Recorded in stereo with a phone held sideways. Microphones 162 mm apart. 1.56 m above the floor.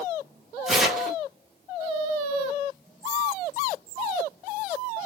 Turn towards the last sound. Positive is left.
turn(degrees=0)  # may be behind; listen again after turning